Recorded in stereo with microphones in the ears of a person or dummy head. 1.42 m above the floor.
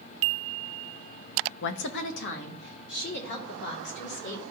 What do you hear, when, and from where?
1.6 s a woman speaking: 55° left (ahead or behind), 0.6 m